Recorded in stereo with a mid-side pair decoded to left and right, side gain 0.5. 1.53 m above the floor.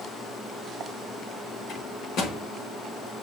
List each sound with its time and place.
1.7 s a microwave: 65° left, 6 m